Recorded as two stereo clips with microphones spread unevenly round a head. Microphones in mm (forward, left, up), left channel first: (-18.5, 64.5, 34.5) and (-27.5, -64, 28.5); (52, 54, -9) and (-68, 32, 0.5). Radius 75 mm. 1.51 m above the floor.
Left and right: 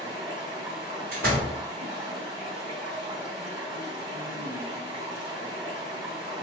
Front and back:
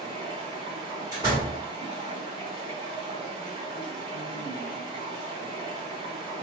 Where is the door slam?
100° right, 1.4 m.